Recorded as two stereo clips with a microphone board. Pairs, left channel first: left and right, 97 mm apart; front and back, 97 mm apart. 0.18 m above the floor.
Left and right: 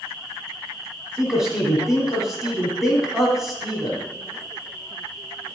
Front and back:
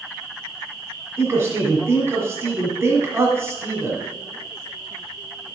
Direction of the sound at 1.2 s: 170° right.